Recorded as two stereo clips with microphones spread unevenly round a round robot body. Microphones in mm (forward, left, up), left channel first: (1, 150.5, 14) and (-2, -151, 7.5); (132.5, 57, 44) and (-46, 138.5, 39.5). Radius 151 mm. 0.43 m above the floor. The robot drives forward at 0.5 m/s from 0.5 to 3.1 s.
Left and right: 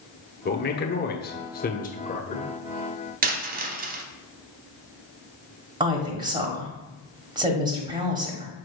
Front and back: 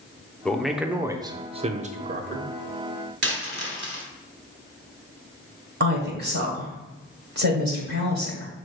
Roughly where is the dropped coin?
Behind right.